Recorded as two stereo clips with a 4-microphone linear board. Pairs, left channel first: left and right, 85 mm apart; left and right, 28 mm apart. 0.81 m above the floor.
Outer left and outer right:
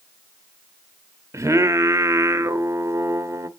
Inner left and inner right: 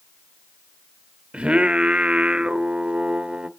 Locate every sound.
1.3 s singing: 35° right (ahead or behind), 0.6 m